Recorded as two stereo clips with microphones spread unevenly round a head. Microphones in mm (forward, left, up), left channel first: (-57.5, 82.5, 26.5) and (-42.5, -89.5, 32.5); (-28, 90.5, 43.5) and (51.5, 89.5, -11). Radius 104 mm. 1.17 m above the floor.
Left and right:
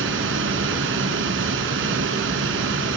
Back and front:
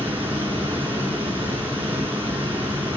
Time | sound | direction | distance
0.0 | running water | 85° right | 4.5 m